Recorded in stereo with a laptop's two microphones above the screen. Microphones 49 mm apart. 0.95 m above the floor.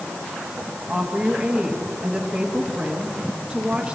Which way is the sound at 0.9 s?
30° right (ahead or behind).